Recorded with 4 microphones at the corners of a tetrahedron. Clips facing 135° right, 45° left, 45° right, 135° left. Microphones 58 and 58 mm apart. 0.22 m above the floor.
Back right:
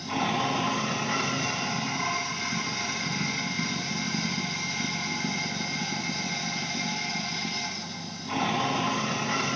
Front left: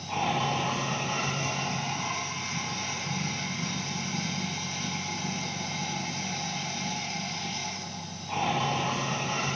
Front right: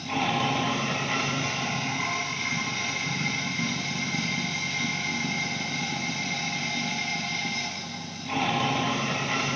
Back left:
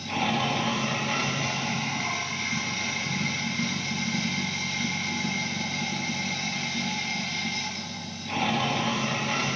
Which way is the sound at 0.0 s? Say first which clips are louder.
Back right 1 dB, front right 1 dB; 130° right.